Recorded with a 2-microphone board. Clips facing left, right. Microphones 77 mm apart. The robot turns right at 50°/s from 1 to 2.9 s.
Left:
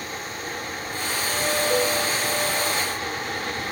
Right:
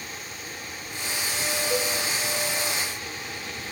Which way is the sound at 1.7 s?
35° left (ahead or behind).